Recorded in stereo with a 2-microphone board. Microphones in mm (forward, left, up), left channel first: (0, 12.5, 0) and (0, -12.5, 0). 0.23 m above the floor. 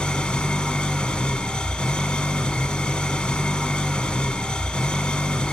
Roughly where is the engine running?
Left.